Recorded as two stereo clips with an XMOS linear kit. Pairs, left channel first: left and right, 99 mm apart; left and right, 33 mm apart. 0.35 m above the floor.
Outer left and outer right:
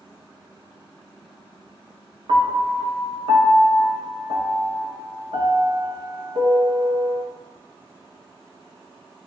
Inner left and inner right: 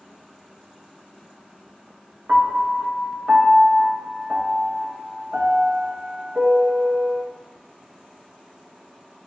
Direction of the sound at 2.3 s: 75° right (ahead or behind).